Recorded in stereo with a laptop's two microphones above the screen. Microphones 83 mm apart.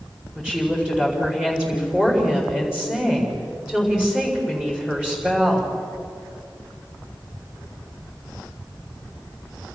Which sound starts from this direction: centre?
A woman speaking, at 0.3 s.